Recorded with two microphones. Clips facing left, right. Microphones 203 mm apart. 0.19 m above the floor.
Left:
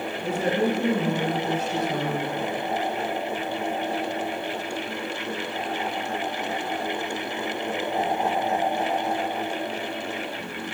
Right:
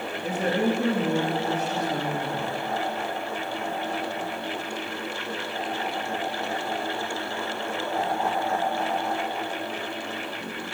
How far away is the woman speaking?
About 3.5 m.